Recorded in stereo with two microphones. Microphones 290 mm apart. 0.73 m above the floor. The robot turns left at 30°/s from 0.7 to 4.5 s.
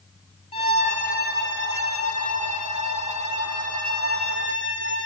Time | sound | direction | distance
0.5 | a violin | 160° left | 0.9 m